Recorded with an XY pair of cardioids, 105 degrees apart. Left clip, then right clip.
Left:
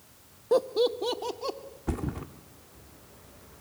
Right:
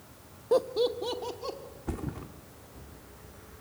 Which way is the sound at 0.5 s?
Straight ahead.